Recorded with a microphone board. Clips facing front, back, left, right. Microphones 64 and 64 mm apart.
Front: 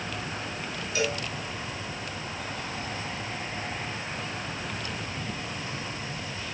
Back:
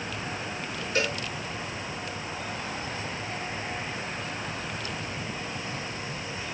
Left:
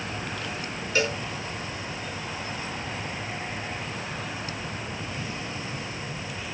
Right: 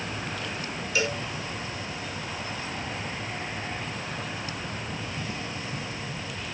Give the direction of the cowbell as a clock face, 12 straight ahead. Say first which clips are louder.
Even, left 2 dB; 7 o'clock.